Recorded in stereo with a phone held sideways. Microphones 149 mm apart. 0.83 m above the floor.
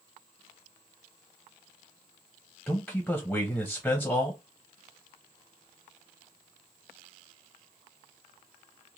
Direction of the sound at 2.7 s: 10° left (ahead or behind).